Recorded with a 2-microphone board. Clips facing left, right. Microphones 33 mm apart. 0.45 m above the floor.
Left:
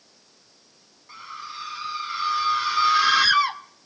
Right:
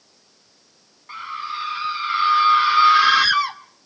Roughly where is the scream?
Right.